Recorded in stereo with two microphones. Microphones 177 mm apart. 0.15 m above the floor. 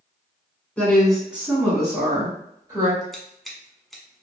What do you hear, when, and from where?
0.8 s a woman speaking: 5° left (ahead or behind), 1.1 m; by 3.0 s 35° right (ahead or behind), 1.6 m
3.1 s scissors: centre (ahead or behind), 0.8 m